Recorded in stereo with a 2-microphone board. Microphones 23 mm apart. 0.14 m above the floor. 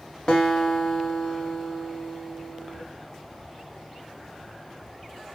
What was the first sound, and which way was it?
A guitar, 35° left (ahead or behind).